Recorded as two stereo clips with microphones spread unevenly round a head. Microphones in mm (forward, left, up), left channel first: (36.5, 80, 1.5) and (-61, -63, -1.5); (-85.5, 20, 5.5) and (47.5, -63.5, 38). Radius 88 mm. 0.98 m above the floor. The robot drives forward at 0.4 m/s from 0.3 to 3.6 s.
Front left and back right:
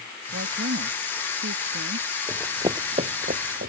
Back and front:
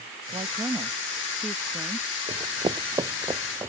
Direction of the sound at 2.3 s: 45° right.